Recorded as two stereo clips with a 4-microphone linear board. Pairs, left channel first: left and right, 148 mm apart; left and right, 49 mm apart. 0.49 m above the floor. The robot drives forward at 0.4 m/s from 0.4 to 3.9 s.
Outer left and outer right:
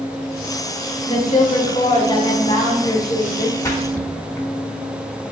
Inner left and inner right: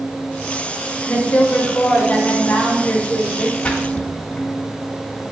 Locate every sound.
1.1 s a woman speaking: 35° left (ahead or behind), 0.8 m; by 3.5 s 25° left (ahead or behind), 1.2 m
3.6 s a splash: 20° left (ahead or behind), 0.7 m